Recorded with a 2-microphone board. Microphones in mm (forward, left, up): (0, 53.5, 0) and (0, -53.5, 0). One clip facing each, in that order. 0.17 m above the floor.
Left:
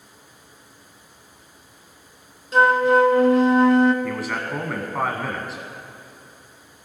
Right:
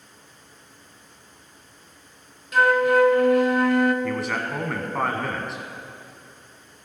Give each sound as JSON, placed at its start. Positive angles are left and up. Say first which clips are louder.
{"t": 2.5, "sound": "a flute", "louder": "left 2 dB", "side_deg": 30, "distance_m": 0.5}
{"t": 4.0, "sound": "a man speaking", "louder": "even", "side_deg": 5, "distance_m": 1.1}